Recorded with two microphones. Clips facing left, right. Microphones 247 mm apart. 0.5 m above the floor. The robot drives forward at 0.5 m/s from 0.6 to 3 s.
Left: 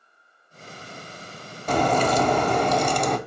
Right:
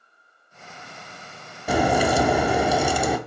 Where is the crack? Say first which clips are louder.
Right 1 dB; 10° right (ahead or behind), 0.5 m; by 3.2 s 5° right (ahead or behind), 0.7 m.